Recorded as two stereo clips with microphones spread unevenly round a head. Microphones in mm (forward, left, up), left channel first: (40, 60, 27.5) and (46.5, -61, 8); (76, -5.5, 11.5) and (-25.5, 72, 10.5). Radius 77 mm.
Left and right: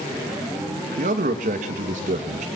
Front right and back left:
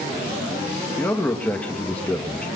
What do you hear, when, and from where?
1.0 s a man speaking: 120° right, 2.5 m